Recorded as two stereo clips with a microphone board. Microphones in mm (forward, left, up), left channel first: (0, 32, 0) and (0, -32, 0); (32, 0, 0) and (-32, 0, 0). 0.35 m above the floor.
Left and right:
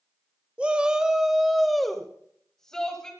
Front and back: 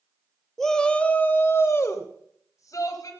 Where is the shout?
70° right, 0.9 m; by 3.1 s 10° left, 1.7 m.